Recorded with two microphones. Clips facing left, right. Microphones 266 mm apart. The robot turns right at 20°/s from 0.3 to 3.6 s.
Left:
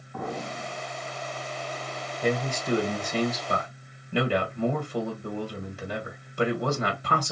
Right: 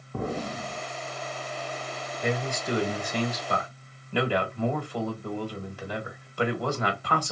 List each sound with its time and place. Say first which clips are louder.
0.1 s an explosion: right 3 dB; 35° right (ahead or behind), 0.7 m; by 0.8 s 45° right (ahead or behind), 0.7 m
2.2 s a man speaking: left 2 dB; 40° left (ahead or behind), 1.6 m; by 7.3 s 25° left (ahead or behind), 1.6 m